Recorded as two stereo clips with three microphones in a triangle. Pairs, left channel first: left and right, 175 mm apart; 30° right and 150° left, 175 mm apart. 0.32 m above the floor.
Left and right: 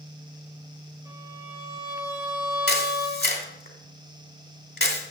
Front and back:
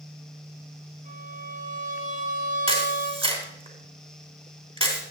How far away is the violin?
About 4 m.